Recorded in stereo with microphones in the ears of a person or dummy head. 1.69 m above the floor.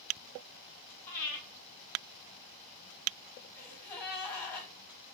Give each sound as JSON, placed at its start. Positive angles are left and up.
{"t": 1.1, "sound": "breathing", "side_deg": 10, "distance_m": 2.5}
{"t": 3.5, "sound": "a gasp", "side_deg": 10, "distance_m": 3.0}